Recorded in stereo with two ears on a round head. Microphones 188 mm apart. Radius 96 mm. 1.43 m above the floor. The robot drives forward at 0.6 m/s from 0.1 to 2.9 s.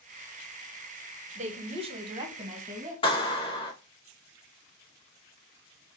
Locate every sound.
1.4 s a woman speaking: 35° right (ahead or behind), 0.9 m; by 2.9 s 20° right (ahead or behind), 1.7 m
3.0 s a clap: 25° left (ahead or behind), 2.0 m